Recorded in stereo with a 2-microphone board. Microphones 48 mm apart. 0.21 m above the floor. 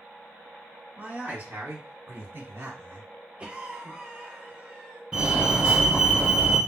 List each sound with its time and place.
1.0 s a man speaking: 35° right (ahead or behind), 1.7 m; by 3.1 s 60° right (ahead or behind), 2.5 m
3.4 s a cough: 25° right (ahead or behind), 1.2 m
5.1 s a fire alarm: 20° right (ahead or behind), 2.5 m